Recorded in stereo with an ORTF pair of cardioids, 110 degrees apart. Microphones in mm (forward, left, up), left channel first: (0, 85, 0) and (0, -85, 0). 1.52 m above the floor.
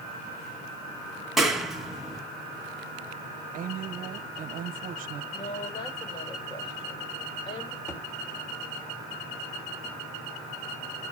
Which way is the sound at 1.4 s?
Straight ahead.